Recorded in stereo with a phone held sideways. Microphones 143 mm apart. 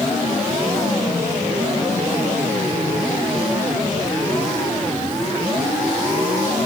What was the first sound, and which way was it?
Only background noise.